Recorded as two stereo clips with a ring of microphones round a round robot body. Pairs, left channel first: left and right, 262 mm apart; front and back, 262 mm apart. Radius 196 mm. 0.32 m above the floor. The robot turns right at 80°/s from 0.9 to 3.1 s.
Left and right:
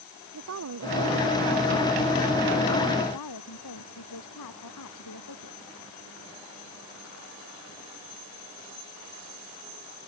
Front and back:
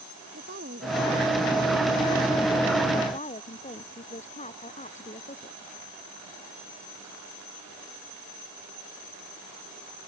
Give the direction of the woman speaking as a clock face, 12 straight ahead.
4 o'clock.